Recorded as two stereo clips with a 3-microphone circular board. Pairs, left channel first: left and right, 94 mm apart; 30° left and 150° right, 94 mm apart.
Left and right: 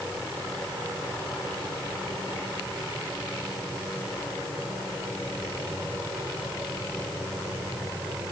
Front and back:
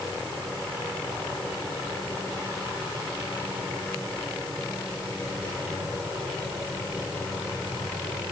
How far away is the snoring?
No snoring in this recording.